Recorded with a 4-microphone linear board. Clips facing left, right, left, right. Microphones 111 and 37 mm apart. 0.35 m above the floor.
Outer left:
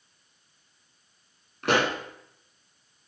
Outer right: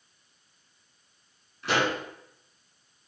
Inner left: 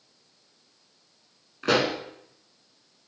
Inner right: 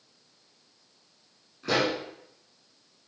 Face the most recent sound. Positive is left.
turn(degrees=65)  # may be behind; listen again after turning